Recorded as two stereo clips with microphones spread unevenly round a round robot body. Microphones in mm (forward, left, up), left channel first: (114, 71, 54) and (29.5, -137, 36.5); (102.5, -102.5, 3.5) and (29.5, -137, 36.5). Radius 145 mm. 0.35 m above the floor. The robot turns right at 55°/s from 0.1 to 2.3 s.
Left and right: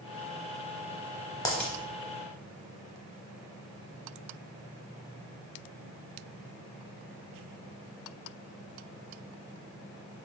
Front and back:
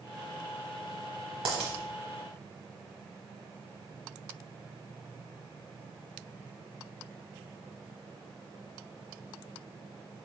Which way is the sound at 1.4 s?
145° left.